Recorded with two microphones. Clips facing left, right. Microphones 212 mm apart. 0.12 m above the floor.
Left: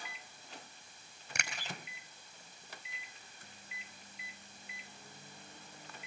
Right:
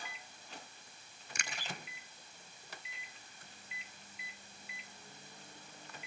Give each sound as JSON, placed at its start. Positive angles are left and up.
{"t": 1.4, "sound": "a finger snap", "side_deg": 70, "distance_m": 4.0}